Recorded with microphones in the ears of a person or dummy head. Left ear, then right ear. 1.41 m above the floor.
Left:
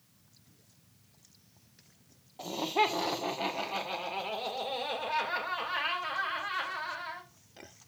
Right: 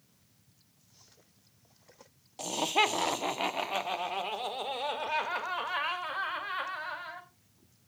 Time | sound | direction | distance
2.4 | laughter | 75° right (ahead or behind) | 1.1 m